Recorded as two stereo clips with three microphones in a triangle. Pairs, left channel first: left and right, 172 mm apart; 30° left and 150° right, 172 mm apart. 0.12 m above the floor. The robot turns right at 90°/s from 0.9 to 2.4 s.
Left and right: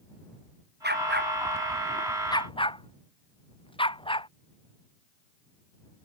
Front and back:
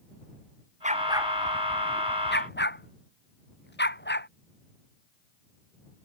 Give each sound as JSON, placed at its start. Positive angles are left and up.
{"t": 0.8, "sound": "a dog barking", "azimuth_deg": -105}